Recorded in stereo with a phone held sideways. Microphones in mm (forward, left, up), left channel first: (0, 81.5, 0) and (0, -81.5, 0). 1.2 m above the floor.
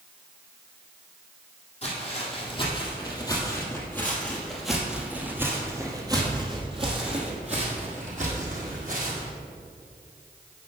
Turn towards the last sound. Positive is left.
turn(degrees=-55)  # may be behind; listen again after turning